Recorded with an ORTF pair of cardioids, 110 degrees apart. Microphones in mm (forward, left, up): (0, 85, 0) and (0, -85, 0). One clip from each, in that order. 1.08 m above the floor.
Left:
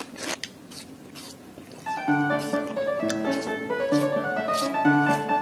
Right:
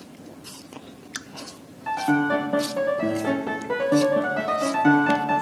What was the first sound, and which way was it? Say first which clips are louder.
A piano: right 2 dB; 10° right.